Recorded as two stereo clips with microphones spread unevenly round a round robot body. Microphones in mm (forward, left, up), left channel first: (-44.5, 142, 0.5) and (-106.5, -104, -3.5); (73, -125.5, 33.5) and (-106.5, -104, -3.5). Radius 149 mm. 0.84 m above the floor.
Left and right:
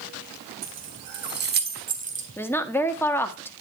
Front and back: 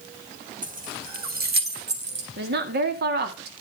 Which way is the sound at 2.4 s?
155° left.